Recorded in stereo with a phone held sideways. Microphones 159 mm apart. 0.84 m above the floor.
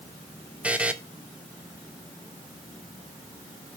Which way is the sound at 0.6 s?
5° right (ahead or behind).